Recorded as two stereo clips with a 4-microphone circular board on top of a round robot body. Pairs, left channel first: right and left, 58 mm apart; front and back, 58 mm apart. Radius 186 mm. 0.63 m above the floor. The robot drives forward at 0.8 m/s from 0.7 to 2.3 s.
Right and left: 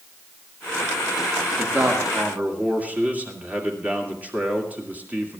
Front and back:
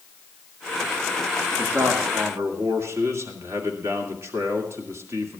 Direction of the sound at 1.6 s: 140° left.